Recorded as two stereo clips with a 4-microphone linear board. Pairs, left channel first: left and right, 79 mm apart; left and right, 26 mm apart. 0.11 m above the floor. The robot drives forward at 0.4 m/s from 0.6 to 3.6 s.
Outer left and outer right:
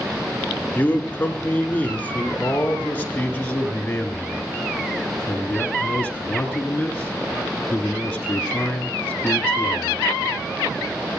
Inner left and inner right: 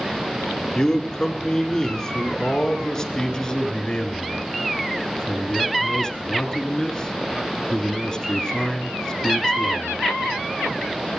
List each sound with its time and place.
0.8 s a man speaking: 20° left (ahead or behind), 1.7 m